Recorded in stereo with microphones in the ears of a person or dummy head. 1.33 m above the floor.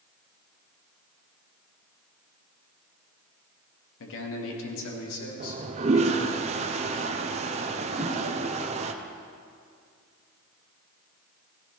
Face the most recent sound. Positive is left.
turn(degrees=-5)  # may be behind; listen again after turning